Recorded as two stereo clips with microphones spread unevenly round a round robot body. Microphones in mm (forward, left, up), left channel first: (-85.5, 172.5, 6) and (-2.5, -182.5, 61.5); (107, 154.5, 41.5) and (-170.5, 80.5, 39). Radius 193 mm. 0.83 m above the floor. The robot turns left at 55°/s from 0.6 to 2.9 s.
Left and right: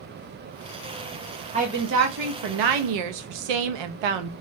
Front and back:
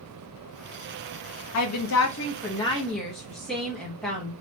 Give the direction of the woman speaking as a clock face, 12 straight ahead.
12 o'clock.